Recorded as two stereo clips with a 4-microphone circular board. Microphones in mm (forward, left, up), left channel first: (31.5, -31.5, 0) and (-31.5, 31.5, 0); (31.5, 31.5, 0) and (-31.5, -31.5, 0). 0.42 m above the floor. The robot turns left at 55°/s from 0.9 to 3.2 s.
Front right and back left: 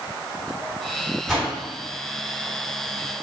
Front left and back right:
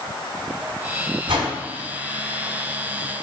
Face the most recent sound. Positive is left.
turn(degrees=110)